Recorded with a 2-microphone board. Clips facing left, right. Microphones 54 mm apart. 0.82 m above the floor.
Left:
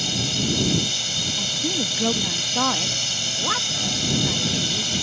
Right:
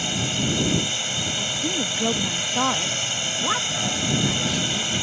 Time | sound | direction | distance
0.0 | a drone | 20° right (ahead or behind) | ?
1.4 | a woman speaking | 5° right (ahead or behind) | ?